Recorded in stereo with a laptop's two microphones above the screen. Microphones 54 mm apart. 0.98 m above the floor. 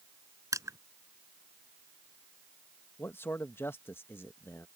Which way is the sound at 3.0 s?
45° left (ahead or behind).